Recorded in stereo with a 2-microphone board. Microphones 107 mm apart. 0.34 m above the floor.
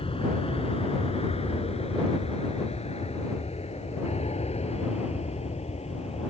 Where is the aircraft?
60° left (ahead or behind); by 6.3 s 75° left (ahead or behind).